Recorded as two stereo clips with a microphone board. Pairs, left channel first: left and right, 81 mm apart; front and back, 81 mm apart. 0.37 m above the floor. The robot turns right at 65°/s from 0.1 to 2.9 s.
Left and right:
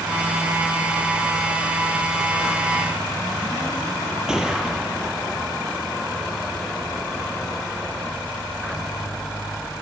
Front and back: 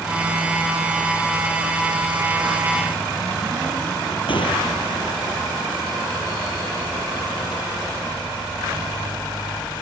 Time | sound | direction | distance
4.3 | a gunshot | 10° right | 4.5 m